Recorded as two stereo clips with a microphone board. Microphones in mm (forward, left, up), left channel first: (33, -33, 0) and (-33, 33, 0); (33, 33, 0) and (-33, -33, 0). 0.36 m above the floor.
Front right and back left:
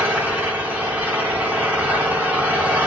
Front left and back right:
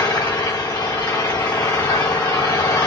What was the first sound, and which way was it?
An engine running, 70° left.